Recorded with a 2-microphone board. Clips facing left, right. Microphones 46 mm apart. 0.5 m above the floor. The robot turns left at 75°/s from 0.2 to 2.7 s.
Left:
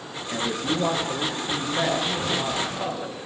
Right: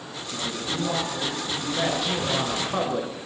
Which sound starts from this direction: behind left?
A man speaking, at 0.3 s.